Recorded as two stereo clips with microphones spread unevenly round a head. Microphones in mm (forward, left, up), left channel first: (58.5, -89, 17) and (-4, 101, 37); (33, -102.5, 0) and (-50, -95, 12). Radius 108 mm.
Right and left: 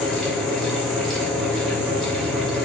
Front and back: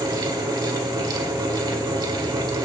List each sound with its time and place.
0.0 s a fan: 160° right, 1.5 m